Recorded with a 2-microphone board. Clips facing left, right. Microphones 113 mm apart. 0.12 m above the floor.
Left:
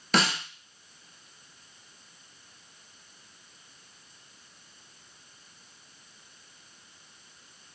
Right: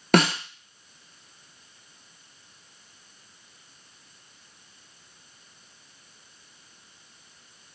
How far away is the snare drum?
About 1.1 m.